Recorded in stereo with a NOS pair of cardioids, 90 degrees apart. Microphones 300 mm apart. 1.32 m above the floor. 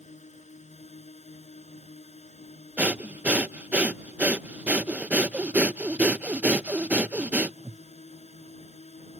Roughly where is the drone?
Ahead.